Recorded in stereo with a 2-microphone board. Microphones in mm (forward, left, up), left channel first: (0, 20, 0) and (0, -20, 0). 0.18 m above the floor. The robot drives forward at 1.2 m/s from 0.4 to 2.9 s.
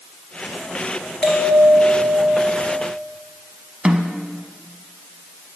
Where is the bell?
20° left (ahead or behind), 3 m; by 2.8 s 40° left (ahead or behind), 1.5 m.